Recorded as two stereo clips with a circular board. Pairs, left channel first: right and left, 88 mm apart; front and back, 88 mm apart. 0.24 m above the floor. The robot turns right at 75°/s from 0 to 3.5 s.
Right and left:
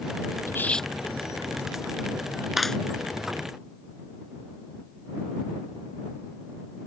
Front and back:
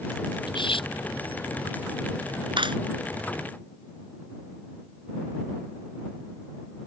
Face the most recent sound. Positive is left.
turn(degrees=-115)